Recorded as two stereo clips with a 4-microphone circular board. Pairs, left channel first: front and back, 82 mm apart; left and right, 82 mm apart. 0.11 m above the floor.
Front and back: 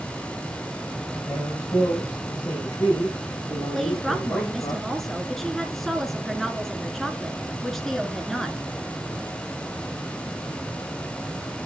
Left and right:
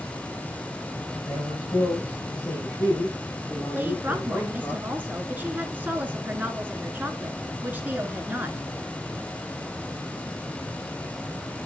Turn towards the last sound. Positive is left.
turn(degrees=-80)